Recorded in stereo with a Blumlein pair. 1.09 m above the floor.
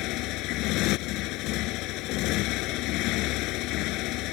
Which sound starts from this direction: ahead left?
A motorcycle, at 0.0 s.